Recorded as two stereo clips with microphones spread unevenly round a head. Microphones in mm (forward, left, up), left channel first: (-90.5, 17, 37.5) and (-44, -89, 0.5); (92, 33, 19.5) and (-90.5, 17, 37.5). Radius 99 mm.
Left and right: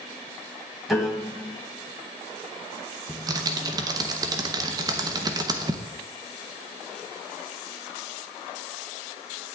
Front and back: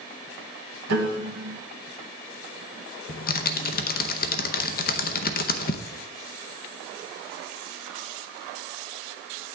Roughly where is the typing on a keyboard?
Ahead.